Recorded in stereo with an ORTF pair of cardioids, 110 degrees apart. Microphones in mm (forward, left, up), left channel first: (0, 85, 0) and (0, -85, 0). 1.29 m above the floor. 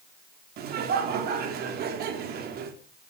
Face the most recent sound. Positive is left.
turn(degrees=-65)